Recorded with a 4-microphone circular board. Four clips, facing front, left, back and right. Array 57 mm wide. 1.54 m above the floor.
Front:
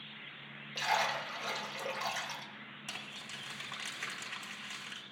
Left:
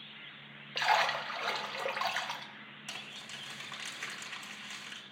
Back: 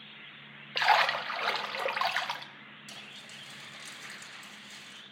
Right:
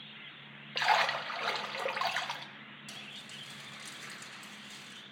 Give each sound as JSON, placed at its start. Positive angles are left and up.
{"t": 0.8, "sound": "a splash", "azimuth_deg": -175, "distance_m": 0.7}
{"t": 2.9, "sound": "crumpling", "azimuth_deg": 40, "distance_m": 4.5}